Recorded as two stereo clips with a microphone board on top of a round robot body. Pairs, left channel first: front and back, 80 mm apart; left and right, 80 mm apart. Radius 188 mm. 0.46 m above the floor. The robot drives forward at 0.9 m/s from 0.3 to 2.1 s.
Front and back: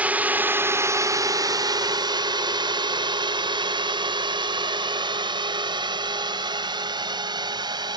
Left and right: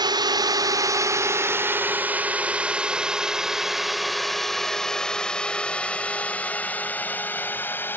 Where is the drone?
110° right; by 8.0 s 155° left.